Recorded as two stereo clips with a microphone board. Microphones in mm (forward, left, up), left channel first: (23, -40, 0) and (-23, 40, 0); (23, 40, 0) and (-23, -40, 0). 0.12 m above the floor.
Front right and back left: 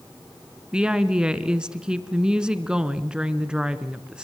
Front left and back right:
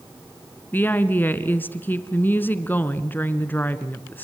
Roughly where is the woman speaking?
Ahead left.